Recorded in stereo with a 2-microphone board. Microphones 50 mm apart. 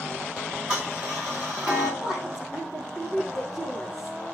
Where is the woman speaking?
10° right (ahead or behind), 6.5 m.